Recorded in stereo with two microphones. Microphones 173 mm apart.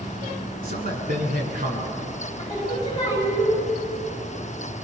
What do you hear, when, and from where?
0.6 s a man speaking: 55° right (ahead or behind), 8 m; by 2.0 s 50° right (ahead or behind), 10 m
2.4 s singing: 25° left (ahead or behind), 9 m